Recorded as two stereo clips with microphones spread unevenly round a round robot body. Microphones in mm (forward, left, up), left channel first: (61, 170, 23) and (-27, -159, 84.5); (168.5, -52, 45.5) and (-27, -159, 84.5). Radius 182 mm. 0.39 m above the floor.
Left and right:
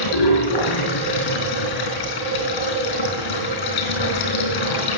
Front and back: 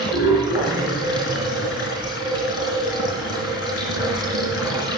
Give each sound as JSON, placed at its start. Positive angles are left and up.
{"t": 0.0, "sound": "running water", "azimuth_deg": 85, "distance_m": 4.5}